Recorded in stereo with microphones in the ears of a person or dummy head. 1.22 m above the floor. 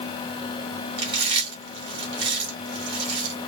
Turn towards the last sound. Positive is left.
turn(degrees=-35)  # may be behind; listen again after turning